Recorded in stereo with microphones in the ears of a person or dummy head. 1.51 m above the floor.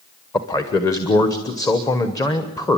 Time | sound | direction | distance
0.3 | a man speaking | 20° left (ahead or behind) | 1.0 m